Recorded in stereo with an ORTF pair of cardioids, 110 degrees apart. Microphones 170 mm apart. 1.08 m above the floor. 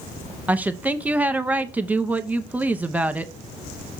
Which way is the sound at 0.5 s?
10° right.